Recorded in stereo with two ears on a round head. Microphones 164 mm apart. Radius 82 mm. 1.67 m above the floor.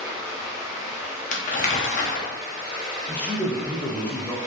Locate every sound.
0.0 s running water: 20° right (ahead or behind), 0.9 m
1.3 s crumpling: 45° left (ahead or behind), 0.8 m
3.1 s a man speaking: 10° left (ahead or behind), 0.7 m